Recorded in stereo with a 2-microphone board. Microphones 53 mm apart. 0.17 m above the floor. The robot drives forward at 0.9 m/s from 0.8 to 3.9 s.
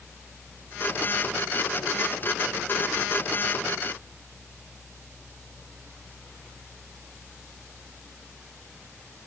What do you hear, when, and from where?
Only background noise.